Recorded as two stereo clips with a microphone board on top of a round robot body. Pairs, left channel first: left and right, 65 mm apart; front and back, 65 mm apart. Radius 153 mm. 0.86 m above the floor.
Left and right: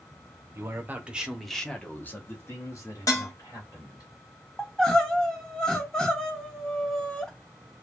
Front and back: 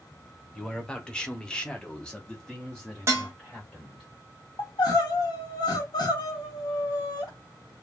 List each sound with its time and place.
0.6 s a man speaking: 75° right, 1.0 m; by 4.1 s 85° left, 1.8 m
3.1 s dishes clattering: 130° left, 0.6 m
4.6 s crying: 10° left, 0.5 m